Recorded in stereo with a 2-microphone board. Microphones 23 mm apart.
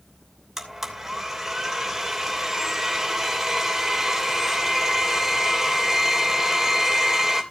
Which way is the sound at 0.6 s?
10° right (ahead or behind).